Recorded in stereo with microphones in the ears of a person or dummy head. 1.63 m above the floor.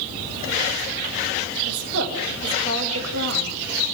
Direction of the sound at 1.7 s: 80° right.